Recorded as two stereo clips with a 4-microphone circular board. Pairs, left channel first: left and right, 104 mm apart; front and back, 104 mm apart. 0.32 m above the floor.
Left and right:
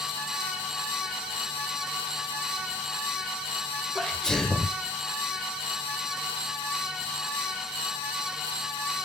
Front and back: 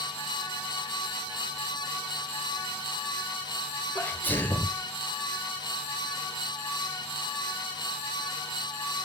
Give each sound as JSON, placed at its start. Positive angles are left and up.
{"t": 4.0, "sound": "a sneeze", "azimuth_deg": 15, "distance_m": 0.9}